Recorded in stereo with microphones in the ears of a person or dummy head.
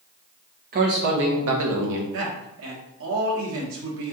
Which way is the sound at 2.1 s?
80° right.